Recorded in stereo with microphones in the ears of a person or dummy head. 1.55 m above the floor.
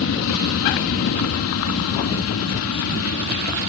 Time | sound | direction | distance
0.0 | an aircraft | 65° left (ahead or behind) | ?